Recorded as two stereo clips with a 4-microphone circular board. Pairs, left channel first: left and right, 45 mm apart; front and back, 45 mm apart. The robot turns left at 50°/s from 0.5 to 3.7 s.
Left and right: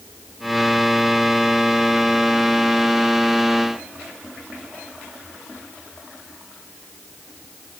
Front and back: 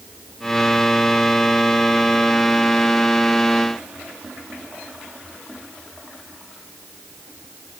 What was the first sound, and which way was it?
Only background noise.